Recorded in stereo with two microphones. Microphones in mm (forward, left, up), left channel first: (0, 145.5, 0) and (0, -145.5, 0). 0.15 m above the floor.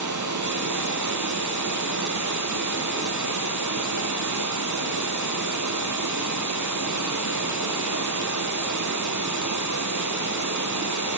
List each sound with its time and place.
0.0 s running water: 80° right, 1.6 m